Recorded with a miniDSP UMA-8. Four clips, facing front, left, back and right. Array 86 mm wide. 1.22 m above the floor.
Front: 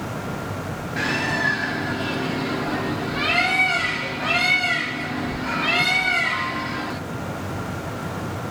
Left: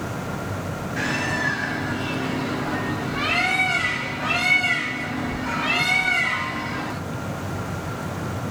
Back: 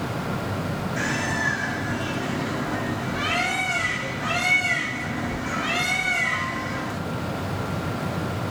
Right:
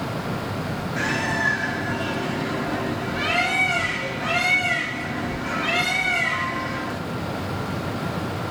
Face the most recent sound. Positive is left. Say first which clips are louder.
# right 1 dB, front 4 dB
turn(degrees=5)